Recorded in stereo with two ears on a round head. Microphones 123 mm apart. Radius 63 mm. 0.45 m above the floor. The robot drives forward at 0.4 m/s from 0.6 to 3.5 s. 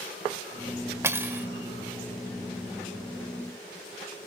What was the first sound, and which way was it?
Cutlery clinking, 20° right (ahead or behind).